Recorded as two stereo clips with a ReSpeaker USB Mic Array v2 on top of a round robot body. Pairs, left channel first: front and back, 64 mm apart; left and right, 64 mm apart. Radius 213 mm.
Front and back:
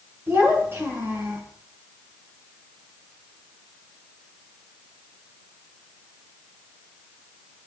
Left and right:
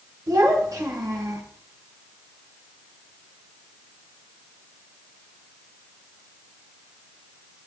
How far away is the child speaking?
About 4 m.